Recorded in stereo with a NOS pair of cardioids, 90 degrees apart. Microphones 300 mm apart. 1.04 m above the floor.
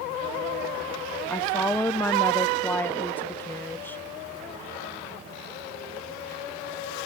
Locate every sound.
1.3 s a woman speaking: 5° left, 0.9 m